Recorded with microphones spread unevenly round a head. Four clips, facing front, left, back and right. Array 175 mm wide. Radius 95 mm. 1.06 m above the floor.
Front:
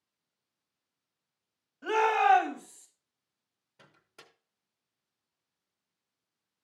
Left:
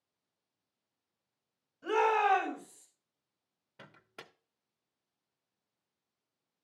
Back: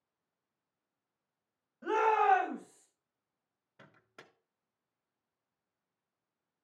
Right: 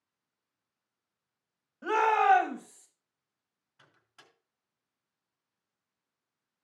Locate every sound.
1.8 s a shout: 75° right, 6 m; by 2.9 s 80° right, 6.5 m
3.8 s a microwave: 100° left, 0.6 m